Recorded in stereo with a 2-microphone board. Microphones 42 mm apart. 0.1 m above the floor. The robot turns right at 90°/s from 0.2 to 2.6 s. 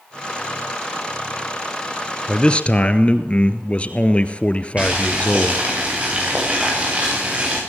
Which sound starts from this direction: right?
Boiling, at 4.8 s.